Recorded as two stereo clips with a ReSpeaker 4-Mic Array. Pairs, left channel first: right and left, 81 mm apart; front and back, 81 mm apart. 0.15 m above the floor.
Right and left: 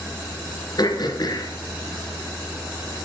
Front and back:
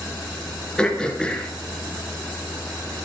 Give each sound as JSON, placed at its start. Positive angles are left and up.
{"t": 0.8, "sound": "throat clearing", "azimuth_deg": -80, "distance_m": 2.5}